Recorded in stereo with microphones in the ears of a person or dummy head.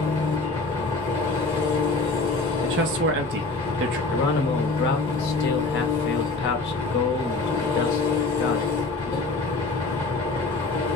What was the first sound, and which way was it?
An engine running, 15° left (ahead or behind).